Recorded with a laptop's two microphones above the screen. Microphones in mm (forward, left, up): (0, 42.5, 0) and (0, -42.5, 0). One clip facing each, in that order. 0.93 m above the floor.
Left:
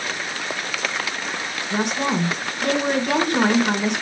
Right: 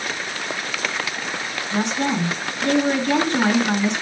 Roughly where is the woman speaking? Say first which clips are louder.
Even; left.